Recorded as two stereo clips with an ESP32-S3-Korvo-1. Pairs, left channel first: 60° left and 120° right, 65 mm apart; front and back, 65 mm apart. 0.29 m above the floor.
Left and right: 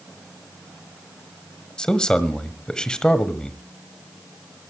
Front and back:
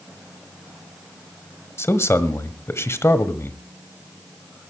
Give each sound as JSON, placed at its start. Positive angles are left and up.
{"t": 1.8, "sound": "a man speaking", "azimuth_deg": -10, "distance_m": 1.4}